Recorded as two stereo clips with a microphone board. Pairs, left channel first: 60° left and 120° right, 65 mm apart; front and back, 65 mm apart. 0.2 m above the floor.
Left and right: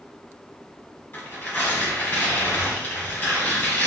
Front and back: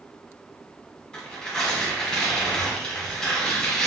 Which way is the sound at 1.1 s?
60° left.